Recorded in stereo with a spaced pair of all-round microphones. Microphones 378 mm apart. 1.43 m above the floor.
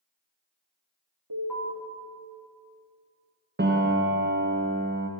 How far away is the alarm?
About 3.5 m.